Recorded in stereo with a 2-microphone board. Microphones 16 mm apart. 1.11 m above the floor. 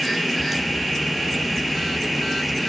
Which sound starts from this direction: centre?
A crack, at 0.4 s.